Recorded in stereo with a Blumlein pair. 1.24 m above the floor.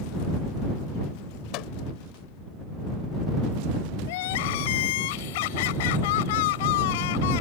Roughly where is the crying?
Ahead left.